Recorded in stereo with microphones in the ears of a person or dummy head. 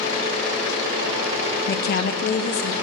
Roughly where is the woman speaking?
Left.